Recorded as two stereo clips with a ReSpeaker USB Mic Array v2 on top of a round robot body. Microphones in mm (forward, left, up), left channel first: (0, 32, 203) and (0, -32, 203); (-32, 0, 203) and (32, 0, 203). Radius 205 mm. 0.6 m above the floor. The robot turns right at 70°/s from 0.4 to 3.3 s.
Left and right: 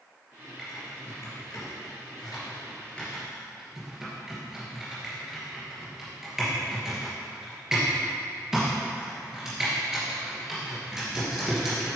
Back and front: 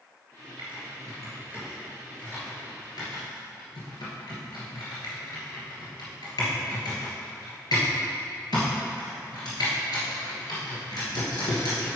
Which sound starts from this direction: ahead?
Typing on a keyboard, at 0.6 s.